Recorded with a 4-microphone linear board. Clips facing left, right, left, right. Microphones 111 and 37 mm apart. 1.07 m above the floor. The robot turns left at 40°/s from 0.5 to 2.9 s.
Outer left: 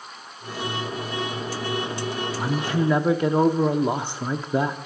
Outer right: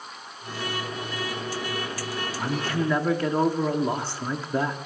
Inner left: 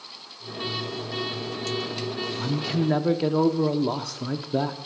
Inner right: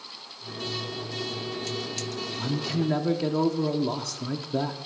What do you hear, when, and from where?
2.4 s a man speaking: 10° left (ahead or behind), 0.5 m; by 4.8 s 15° left (ahead or behind), 0.5 m